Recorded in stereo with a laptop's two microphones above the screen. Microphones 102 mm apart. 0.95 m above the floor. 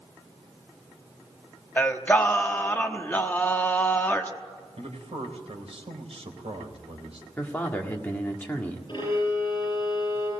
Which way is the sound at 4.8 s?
80° right.